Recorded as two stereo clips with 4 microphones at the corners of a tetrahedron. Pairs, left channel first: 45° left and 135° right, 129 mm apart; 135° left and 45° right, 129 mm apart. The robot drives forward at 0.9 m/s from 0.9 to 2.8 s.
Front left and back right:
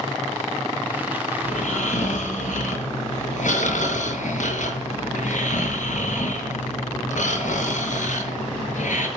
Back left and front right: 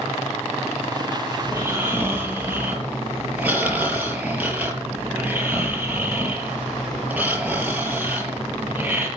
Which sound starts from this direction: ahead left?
Snoring, at 1.4 s.